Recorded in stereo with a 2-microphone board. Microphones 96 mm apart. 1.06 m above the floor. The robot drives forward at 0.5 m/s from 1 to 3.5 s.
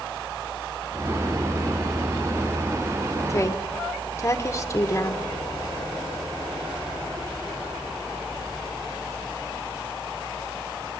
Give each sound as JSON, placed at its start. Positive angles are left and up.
{"t": 3.3, "sound": "a woman speaking", "side_deg": 30, "distance_m": 0.9}